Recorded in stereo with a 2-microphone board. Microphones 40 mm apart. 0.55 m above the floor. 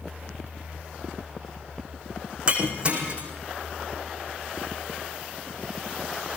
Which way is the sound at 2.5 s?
30° right (ahead or behind).